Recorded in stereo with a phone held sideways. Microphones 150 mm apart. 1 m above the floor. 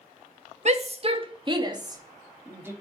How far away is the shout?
About 1.5 m.